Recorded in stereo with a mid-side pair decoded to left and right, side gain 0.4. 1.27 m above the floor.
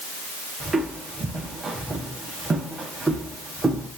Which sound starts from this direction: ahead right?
Footsteps, at 0.6 s.